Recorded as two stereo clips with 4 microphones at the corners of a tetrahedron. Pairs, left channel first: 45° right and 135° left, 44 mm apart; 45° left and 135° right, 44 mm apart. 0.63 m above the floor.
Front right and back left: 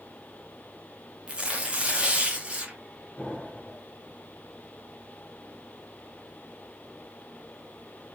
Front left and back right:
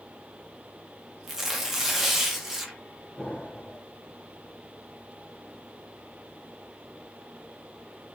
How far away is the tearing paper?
About 1.0 m.